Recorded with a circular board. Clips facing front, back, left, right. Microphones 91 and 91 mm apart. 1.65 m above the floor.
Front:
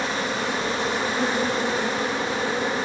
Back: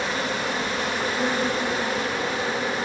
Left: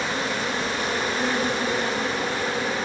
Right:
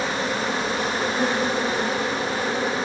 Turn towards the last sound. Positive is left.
turn(degrees=-50)